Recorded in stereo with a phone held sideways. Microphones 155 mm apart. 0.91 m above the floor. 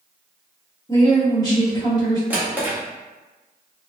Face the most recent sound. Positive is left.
turn(degrees=-10)  # may be behind; listen again after turning